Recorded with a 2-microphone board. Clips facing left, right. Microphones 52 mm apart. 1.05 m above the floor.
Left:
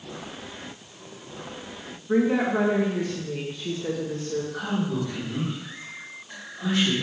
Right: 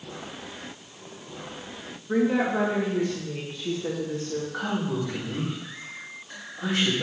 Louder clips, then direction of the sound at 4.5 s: Left 1 dB; 25° right (ahead or behind).